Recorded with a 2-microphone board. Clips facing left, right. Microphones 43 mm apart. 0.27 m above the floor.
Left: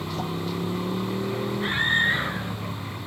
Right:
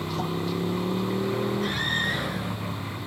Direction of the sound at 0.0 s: 5° right (ahead or behind).